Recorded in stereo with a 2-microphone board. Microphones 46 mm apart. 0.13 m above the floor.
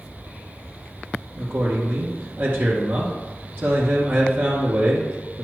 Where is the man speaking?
50° right (ahead or behind), 2 m.